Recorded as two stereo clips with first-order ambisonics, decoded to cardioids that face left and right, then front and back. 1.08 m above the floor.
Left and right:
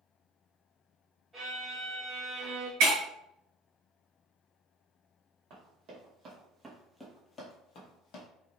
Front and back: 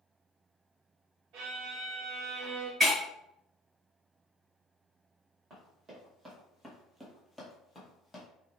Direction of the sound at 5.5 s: 120° right.